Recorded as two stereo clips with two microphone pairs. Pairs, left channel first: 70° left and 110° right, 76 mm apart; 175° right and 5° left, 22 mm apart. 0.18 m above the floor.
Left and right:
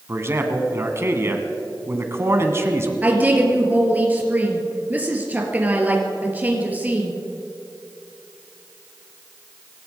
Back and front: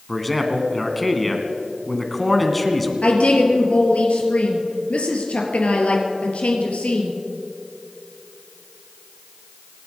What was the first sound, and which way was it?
A man speaking, 85° right.